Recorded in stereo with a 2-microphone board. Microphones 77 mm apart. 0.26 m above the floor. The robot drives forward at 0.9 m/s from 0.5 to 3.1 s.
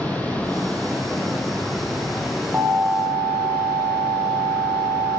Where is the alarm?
35° right (ahead or behind), 1.9 m; by 5.2 s 30° right (ahead or behind), 2 m.